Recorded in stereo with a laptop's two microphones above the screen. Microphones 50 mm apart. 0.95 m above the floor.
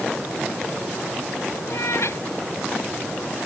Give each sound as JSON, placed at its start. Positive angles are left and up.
{"t": 1.7, "sound": "a cat meowing", "side_deg": 60}